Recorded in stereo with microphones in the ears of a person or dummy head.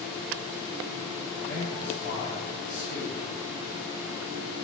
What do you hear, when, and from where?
1.4 s a man speaking: 85° left, 4 m